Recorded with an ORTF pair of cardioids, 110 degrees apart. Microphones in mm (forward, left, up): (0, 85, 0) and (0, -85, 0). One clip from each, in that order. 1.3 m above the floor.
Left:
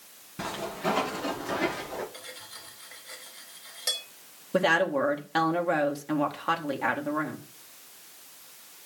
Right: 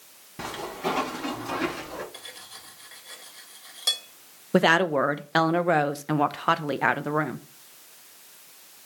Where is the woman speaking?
35° right, 0.9 m.